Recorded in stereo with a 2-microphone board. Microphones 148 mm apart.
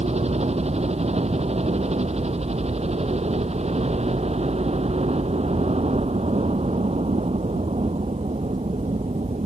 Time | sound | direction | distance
0.0 | a helicopter | 45° right (ahead or behind) | ?